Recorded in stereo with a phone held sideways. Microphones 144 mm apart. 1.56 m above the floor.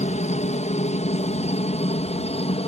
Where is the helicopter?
50° left (ahead or behind); by 2.7 s 40° left (ahead or behind).